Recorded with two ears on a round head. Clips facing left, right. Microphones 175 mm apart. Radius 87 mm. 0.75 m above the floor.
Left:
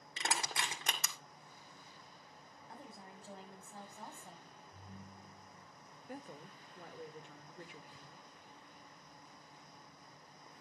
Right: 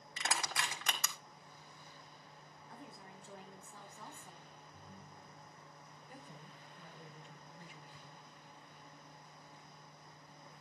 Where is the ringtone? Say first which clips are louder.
Left 4 dB; 25° left (ahead or behind), 6 m.